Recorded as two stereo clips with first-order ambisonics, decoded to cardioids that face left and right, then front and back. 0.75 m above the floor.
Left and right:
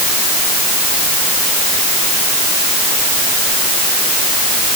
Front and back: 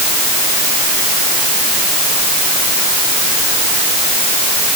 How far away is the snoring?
No snoring in this recording.